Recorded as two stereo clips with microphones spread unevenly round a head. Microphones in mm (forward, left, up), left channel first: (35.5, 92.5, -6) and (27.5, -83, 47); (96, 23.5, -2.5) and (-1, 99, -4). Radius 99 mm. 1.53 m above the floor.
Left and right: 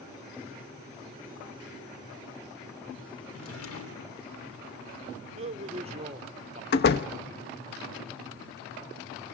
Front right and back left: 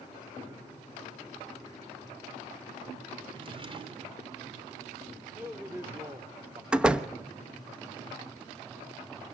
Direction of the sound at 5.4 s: 140° right.